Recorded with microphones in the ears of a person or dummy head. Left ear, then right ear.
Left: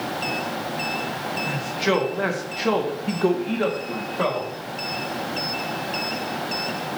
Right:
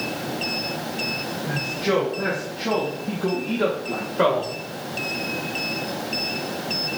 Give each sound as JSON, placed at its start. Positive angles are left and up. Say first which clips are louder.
{"t": 1.5, "sound": "a man speaking", "louder": "even", "side_deg": 60, "distance_m": 1.4}